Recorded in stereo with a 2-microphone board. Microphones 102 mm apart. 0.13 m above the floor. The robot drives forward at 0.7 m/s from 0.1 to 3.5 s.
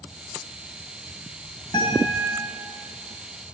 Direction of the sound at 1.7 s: 40° left (ahead or behind).